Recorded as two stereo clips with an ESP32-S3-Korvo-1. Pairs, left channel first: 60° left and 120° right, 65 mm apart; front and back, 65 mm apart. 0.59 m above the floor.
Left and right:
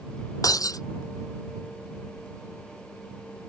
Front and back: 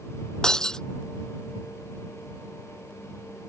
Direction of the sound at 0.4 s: 80° left.